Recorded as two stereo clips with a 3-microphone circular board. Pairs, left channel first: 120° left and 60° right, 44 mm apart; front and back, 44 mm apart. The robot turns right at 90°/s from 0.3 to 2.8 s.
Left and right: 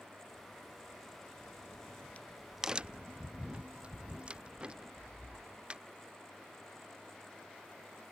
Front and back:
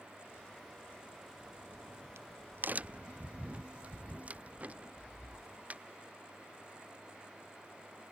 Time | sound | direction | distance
1.4 | a crack | 110° left | ?